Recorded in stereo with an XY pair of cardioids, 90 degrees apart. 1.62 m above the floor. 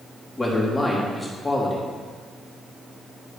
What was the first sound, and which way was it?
A man speaking, 15° left.